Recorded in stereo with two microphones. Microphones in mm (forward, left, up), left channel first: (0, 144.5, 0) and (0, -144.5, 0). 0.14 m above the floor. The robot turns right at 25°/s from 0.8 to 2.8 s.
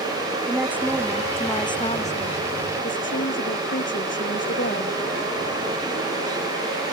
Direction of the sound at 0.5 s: 5° right.